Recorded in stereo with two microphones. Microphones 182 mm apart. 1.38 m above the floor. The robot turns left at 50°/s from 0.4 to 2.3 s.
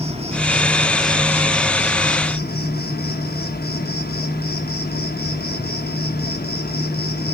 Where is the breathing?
No breathing in this recording.